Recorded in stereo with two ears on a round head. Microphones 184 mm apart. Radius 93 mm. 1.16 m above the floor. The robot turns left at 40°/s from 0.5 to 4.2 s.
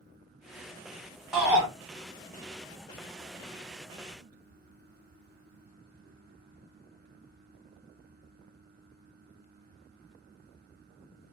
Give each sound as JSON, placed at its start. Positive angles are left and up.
{"t": 1.3, "sound": "a shout", "side_deg": 0, "distance_m": 1.2}